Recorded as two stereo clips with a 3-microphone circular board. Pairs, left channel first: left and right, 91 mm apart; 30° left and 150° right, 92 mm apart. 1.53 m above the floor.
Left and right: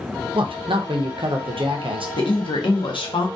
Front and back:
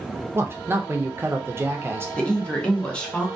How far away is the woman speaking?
About 0.7 m.